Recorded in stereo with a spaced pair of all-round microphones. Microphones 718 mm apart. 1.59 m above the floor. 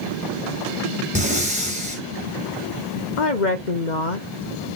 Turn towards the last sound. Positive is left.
turn(degrees=80)